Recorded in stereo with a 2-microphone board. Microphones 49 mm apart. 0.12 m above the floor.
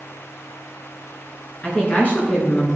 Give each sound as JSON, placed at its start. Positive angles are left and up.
{"t": 1.6, "sound": "a woman speaking", "side_deg": 30, "distance_m": 1.8}